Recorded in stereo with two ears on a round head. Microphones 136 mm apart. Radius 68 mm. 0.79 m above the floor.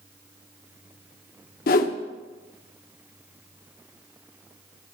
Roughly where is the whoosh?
Left.